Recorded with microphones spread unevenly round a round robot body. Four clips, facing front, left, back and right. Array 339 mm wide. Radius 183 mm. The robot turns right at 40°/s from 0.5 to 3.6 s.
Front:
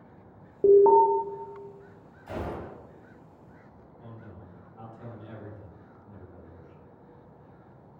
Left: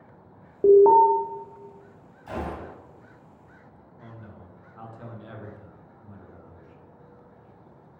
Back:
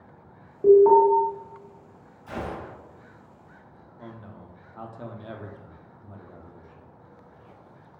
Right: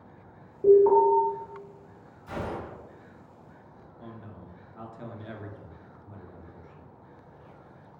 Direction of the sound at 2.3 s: 85° left.